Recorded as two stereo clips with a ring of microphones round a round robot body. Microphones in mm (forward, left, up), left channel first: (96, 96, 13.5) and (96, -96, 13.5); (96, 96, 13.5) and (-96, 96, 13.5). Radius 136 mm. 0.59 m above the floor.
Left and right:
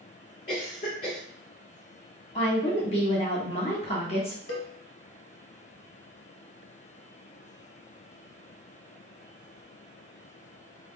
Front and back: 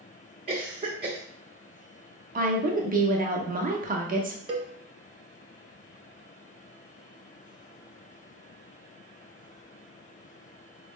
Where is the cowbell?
115° left, 1.4 m.